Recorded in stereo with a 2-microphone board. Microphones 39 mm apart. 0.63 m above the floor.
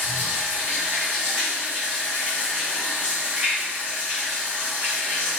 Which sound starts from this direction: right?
Running water, at 0.0 s.